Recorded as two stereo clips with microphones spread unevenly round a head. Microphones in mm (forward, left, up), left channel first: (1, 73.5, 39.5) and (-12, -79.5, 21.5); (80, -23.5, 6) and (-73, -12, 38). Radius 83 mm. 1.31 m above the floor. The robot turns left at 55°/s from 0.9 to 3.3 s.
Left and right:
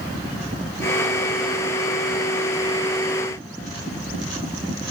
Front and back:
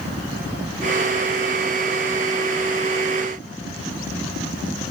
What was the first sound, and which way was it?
Only background noise.